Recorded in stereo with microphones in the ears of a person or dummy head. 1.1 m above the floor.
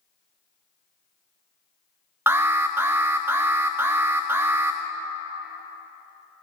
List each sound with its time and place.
2.3 s an alarm: 20° right (ahead or behind), 1.0 m